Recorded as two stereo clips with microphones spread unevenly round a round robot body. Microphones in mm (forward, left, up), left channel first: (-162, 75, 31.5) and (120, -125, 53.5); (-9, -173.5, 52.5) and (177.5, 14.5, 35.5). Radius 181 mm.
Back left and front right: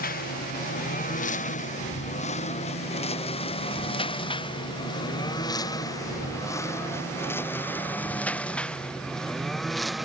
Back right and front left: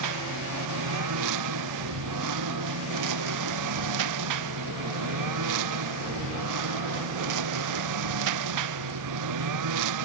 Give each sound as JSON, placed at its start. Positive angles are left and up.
{"t": 0.0, "sound": "a lawn mower", "azimuth_deg": 75}